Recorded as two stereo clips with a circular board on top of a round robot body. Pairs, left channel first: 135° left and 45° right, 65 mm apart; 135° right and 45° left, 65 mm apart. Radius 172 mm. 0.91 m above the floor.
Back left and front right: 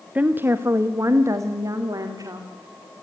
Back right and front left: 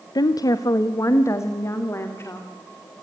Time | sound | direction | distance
0.1 | a woman speaking | 115° right | 0.9 m